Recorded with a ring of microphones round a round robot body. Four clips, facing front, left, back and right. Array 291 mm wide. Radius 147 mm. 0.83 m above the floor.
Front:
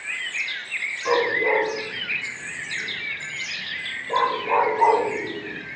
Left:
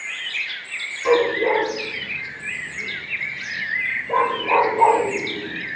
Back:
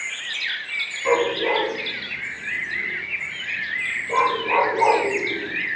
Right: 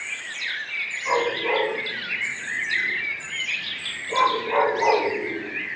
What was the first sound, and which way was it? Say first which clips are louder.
A dog barking: left 6 dB, back 1 dB; 110° left.